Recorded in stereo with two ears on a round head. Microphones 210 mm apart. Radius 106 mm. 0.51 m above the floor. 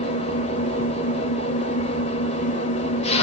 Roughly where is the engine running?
Left.